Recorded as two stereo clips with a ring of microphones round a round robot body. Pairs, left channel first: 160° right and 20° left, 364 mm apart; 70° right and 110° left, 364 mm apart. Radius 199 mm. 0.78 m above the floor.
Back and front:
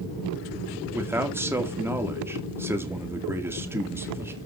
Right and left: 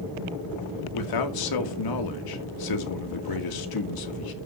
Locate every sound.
0.9 s a man speaking: 60° right, 2 m